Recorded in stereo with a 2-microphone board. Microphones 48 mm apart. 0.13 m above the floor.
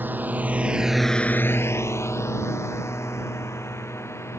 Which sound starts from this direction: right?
A drone, at 0.0 s.